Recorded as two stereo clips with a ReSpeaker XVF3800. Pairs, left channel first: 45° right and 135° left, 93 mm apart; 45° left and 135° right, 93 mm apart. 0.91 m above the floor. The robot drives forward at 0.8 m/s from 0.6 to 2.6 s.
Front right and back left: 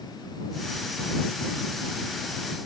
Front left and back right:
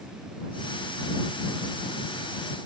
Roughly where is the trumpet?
No trumpet in this recording.